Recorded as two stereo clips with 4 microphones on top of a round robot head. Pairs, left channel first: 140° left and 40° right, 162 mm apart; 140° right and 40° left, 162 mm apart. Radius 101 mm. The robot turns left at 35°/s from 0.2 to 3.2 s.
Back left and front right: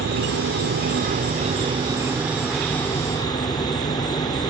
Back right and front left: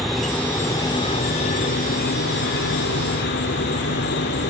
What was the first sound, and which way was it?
An insect, 50° right.